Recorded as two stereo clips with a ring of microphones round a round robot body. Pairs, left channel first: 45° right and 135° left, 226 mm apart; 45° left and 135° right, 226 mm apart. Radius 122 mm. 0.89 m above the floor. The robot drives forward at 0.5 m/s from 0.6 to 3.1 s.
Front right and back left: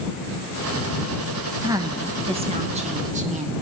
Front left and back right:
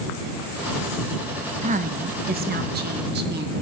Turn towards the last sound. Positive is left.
turn(degrees=-170)